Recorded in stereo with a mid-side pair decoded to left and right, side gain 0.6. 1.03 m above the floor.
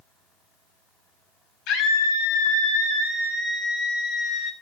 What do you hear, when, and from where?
1.7 s a scream: 70° left, 6 m; by 4.5 s 45° left, 5 m